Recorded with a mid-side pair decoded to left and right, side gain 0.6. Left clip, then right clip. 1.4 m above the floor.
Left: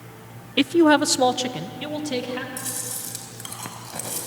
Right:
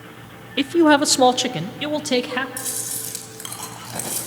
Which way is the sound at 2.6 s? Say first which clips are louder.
Right 2 dB; 20° right.